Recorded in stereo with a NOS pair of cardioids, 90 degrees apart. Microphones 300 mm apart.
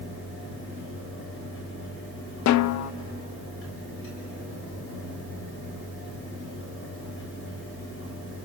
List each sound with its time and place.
0.0 s a fan: 45° left, 7 m
2.5 s a snare drum: 70° left, 0.7 m